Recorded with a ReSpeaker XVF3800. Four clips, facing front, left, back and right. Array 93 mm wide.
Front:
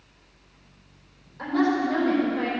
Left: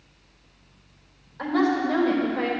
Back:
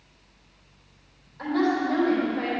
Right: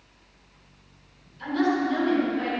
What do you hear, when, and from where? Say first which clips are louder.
1.4 s a woman speaking: left 2 dB, front 1 dB; 80° left, 4 m